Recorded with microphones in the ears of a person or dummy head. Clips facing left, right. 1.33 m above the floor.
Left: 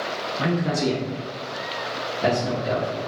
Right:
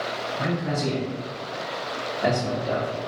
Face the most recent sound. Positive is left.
turn(degrees=0)  # may be behind; listen again after turning